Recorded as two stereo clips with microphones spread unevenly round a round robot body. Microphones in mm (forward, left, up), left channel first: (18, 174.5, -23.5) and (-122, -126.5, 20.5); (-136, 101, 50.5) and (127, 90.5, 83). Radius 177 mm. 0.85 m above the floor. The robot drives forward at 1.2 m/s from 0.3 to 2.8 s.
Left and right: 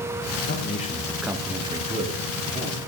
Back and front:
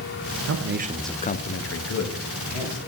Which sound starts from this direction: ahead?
A man speaking, at 0.5 s.